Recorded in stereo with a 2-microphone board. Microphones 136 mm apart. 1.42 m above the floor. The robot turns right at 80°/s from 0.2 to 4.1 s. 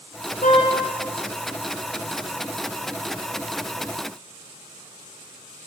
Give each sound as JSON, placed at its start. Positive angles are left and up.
{"t": 0.4, "sound": "a car horn", "side_deg": 70, "distance_m": 7.5}